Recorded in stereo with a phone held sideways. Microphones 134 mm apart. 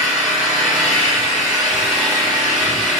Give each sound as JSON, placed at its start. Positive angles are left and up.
{"t": 0.0, "sound": "an engine running", "side_deg": -5, "distance_m": 1.5}